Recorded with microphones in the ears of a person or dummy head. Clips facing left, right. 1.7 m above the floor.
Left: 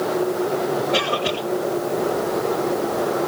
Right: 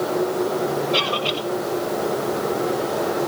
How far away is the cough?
About 8 m.